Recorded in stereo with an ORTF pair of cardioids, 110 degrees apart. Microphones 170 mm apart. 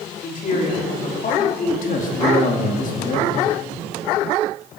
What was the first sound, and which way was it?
A woman speaking, 50° left.